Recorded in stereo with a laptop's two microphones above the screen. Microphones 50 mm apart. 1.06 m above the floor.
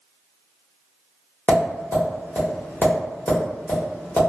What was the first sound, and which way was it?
Tapping, 35° left (ahead or behind).